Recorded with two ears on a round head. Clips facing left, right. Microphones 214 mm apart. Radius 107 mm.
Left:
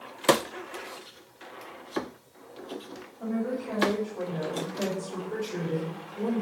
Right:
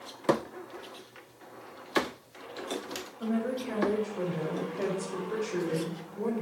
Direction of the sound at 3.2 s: 25° right (ahead or behind).